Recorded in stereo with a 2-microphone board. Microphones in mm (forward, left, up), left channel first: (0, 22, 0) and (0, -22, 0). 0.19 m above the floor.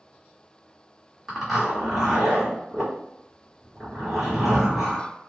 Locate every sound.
1.3 s a zipper: centre (ahead or behind), 1.7 m